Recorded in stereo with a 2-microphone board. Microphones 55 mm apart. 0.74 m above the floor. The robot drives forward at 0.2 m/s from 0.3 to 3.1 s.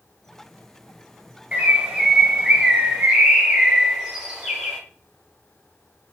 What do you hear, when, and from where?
1.5 s a bird: 25° right (ahead or behind), 0.5 m; by 4.8 s 15° right (ahead or behind), 0.8 m